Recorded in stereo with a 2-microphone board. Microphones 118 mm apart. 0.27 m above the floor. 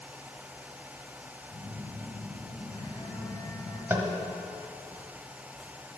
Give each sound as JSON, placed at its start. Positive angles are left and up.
{"t": 1.5, "sound": "a phone buzzing", "side_deg": 35, "distance_m": 1.7}
{"t": 3.9, "sound": "tapping", "side_deg": -20, "distance_m": 1.2}